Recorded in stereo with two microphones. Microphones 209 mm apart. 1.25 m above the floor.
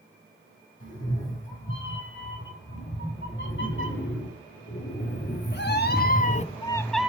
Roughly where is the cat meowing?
Left.